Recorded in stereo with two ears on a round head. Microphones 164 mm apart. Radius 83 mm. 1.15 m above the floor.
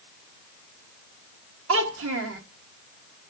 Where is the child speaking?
70° right (ahead or behind), 1.3 m.